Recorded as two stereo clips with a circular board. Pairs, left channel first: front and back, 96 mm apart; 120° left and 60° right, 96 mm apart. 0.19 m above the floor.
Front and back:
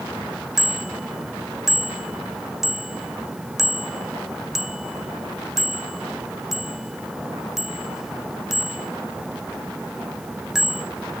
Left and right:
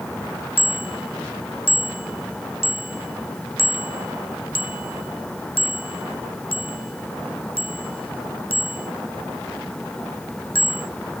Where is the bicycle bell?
95° left.